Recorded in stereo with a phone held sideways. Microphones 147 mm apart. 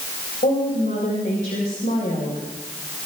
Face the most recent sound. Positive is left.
turn(degrees=80)